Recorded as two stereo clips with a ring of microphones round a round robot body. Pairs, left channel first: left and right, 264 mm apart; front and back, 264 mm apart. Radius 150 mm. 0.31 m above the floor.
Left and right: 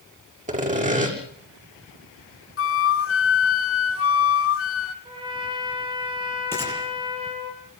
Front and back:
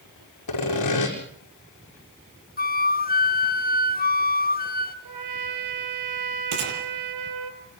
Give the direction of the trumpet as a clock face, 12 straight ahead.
5 o'clock.